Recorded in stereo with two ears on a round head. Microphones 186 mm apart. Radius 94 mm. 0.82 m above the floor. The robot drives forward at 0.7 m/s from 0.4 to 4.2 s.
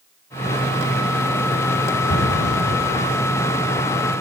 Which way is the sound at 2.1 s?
55° left (ahead or behind).